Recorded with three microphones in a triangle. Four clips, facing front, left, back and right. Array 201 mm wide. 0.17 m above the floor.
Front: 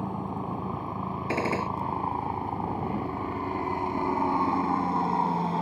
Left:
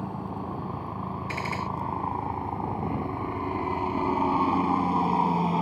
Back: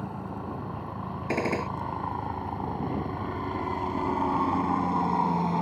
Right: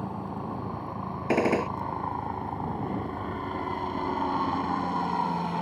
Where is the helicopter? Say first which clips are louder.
Even, front 3 dB; straight ahead; by 5.6 s 95° left.